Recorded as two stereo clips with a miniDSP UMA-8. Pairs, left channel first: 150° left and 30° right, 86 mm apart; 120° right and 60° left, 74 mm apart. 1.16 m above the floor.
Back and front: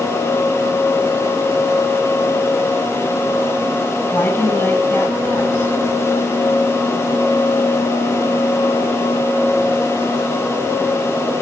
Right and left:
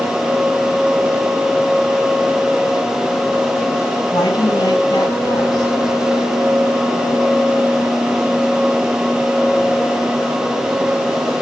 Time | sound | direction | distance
4.1 | a woman speaking | 150° right | 8.5 m